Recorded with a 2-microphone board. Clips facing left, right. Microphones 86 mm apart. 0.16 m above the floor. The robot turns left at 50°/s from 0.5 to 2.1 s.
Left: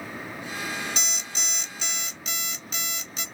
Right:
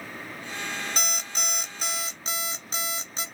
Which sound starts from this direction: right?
An alarm clock, at 1.0 s.